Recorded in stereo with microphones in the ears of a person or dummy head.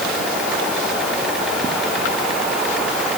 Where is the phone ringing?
No phone ringing in this recording.